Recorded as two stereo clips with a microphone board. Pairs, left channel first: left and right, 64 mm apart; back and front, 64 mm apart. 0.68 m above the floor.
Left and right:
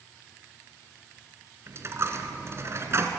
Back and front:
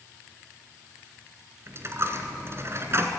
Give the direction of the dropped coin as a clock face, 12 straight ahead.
2 o'clock.